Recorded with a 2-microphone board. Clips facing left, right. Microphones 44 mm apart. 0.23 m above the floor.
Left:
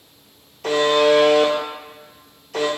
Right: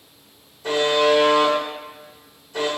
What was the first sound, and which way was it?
A buzzer, 80° left.